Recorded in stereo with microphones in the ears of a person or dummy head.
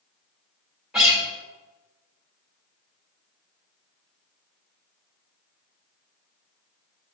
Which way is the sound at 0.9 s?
5° right (ahead or behind).